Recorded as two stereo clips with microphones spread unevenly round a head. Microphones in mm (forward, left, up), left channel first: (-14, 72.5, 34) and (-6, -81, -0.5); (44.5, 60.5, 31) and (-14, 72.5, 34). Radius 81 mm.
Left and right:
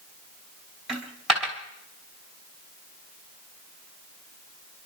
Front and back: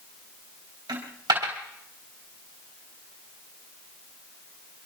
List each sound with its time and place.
0.9 s a dropped coin: straight behind, 3.5 m